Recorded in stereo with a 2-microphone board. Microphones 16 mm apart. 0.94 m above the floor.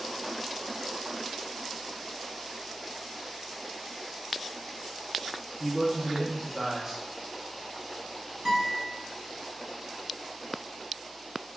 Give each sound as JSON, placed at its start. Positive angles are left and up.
{"t": 5.6, "sound": "a man speaking", "side_deg": -30, "distance_m": 0.7}
{"t": 8.4, "sound": "a guitar", "side_deg": -65, "distance_m": 1.3}